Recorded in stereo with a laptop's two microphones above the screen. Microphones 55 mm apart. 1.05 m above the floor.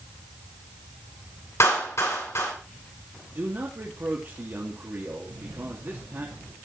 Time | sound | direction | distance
1.6 | a clap | 55° left (ahead or behind) | 9.5 m
3.3 | a man speaking | 45° right (ahead or behind) | 2.5 m
5.3 | a camera shutter | 80° right | 4.5 m